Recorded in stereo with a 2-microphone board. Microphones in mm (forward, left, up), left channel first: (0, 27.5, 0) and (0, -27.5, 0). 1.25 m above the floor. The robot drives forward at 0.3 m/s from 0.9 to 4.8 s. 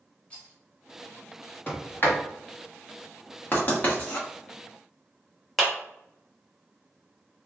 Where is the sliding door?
40° left (ahead or behind), 1.2 m; by 2.2 s 45° left (ahead or behind), 1.1 m.